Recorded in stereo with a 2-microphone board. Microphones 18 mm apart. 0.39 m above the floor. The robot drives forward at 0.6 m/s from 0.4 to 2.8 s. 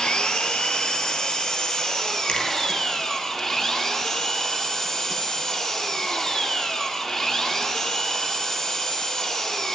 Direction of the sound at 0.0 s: 65° left (ahead or behind).